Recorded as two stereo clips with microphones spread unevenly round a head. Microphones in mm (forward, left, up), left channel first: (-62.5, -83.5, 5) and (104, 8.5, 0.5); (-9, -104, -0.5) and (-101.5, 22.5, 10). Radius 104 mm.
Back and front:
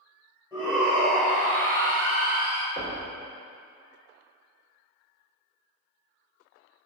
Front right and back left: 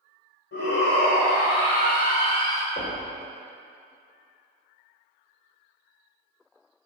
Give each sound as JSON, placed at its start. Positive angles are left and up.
{"t": 0.5, "sound": "a shout", "azimuth_deg": -55, "distance_m": 3.5}
{"t": 2.8, "sound": "knocking", "azimuth_deg": -100, "distance_m": 3.0}